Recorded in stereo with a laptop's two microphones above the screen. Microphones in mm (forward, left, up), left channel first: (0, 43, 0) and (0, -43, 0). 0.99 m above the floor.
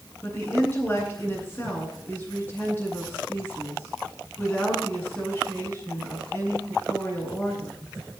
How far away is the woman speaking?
About 10 m.